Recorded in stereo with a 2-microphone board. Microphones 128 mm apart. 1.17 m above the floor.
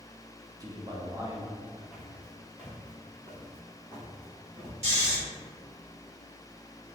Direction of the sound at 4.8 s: 55° right (ahead or behind).